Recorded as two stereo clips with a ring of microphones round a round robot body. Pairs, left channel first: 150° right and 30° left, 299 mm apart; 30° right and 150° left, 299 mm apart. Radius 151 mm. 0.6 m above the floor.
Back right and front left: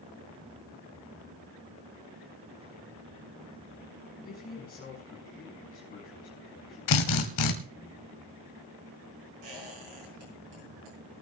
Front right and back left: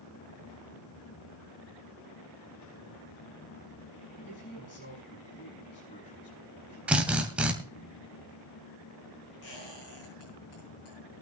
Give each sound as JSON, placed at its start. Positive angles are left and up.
{"t": 4.2, "sound": "a man speaking", "azimuth_deg": -85, "distance_m": 5.5}
{"t": 6.9, "sound": "a drill", "azimuth_deg": -125, "distance_m": 2.0}
{"t": 9.4, "sound": "a squeak", "azimuth_deg": 15, "distance_m": 7.5}